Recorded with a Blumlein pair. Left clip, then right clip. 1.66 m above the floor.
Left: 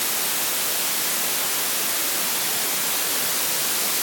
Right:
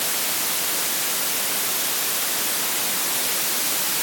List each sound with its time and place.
Only background noise.